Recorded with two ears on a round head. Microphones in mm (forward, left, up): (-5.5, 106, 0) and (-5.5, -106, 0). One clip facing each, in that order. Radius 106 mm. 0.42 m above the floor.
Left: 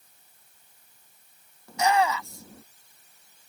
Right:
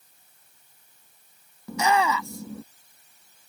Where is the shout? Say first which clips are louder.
Even; 65° right (ahead or behind).